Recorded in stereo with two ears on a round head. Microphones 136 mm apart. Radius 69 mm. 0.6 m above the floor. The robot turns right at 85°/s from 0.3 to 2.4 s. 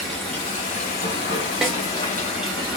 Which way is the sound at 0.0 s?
Straight ahead.